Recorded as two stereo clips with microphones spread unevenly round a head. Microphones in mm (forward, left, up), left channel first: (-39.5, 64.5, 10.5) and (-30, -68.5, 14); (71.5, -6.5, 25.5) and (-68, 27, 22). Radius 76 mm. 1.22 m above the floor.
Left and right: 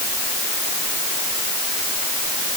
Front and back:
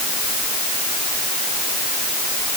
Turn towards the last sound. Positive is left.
No sound to turn to.